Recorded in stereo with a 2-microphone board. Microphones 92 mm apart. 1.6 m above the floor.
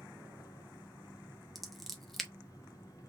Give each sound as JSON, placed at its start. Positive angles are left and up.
{"t": 0.0, "sound": "an engine running", "side_deg": 40, "distance_m": 2.0}
{"t": 1.6, "sound": "scissors", "side_deg": 0, "distance_m": 1.0}